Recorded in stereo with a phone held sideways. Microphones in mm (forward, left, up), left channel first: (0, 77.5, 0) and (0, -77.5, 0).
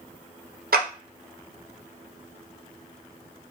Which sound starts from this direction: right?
A clap, at 0.7 s.